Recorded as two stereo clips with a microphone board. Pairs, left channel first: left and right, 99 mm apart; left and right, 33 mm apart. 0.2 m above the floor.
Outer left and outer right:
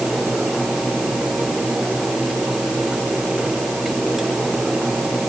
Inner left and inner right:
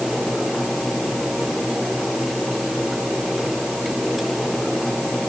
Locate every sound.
Only background noise.